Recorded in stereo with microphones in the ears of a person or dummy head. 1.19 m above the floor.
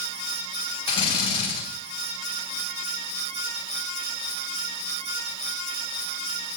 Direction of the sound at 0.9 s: 25° left (ahead or behind).